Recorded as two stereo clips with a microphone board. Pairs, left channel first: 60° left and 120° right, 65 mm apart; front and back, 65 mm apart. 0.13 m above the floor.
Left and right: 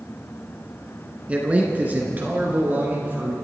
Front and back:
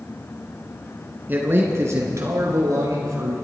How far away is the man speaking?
About 1.8 m.